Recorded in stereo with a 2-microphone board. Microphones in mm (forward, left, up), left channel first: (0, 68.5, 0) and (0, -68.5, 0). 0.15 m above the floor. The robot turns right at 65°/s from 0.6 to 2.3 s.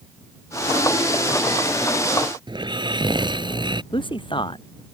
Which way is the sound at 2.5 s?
35° right (ahead or behind).